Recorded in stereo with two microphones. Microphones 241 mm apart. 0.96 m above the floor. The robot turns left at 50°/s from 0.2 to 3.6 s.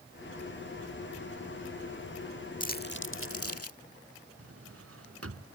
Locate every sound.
2.6 s crumpling: 35° left (ahead or behind); by 3.8 s 75° left (ahead or behind)
4.4 s a drawer: 75° right (ahead or behind)